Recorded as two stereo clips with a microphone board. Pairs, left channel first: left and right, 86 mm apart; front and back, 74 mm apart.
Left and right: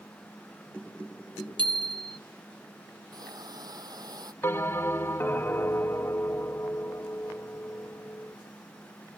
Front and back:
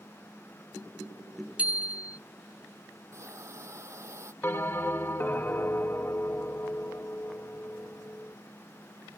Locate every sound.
1.6 s a bicycle bell: 110° right
3.1 s a hiss: 130° right
4.4 s a bell: 40° left